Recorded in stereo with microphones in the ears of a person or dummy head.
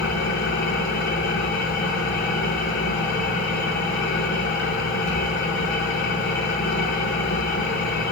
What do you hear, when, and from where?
0.0 s an engine running: 65° left (ahead or behind), 5.5 m